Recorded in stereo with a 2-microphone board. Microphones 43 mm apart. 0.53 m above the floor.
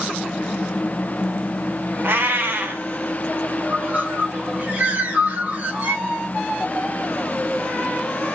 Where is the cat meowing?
60° right (ahead or behind), 0.8 m.